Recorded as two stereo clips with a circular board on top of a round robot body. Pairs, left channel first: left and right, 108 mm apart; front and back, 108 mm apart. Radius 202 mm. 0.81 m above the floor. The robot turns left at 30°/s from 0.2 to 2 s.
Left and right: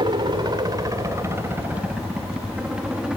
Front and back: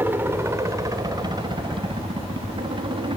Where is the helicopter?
115° right; by 3.2 s 170° right.